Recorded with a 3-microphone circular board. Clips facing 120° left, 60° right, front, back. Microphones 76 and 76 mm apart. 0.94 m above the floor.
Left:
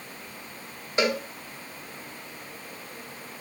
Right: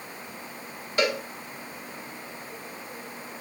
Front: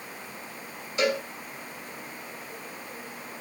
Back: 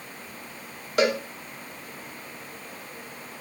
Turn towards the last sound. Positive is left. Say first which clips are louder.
# even, back 3 dB
turn(degrees=-170)